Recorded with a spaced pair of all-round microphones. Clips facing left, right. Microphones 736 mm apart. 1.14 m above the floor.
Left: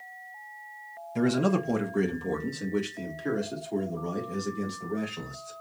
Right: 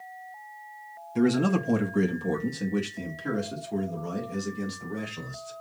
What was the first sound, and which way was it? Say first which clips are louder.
A man speaking: right 2 dB; 15° left (ahead or behind).